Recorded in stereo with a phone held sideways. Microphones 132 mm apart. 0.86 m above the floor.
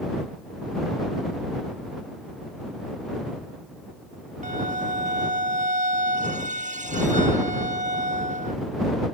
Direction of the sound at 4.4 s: 75° right (ahead or behind).